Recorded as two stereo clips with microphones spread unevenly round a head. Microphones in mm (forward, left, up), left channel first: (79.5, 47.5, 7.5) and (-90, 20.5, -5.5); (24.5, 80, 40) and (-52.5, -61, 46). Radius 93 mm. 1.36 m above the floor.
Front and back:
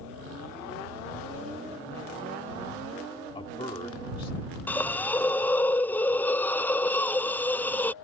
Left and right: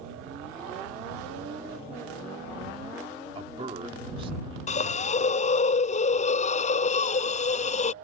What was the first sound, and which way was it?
A man speaking, 55° right.